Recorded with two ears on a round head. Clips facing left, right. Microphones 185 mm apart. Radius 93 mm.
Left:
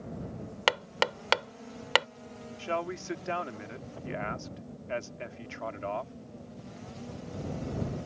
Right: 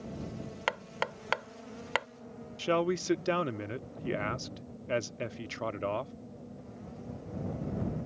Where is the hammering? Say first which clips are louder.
Left 7 dB; 55° left (ahead or behind).